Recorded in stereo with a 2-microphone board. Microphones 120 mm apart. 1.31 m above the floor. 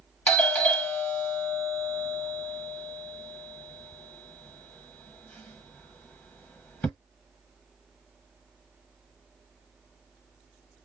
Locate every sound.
0.3 s a doorbell: 10° left (ahead or behind), 1.1 m